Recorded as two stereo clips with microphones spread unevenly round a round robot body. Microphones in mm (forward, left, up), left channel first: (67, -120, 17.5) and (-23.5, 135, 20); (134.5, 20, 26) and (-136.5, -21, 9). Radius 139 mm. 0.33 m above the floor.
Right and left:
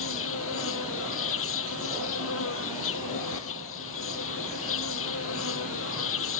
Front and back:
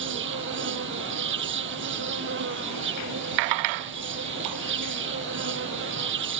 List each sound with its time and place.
0.0 s an insect: 120° right